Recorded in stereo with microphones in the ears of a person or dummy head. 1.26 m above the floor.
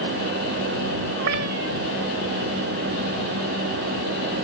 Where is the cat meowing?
65° right (ahead or behind).